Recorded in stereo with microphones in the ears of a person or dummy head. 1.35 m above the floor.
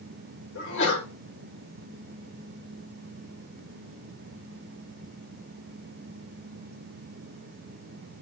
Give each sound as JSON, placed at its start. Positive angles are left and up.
{"t": 0.6, "sound": "a sneeze", "side_deg": 65, "distance_m": 6.0}